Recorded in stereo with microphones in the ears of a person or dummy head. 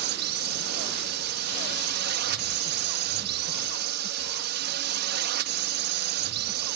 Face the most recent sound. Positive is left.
turn(degrees=-55)  # may be behind; listen again after turning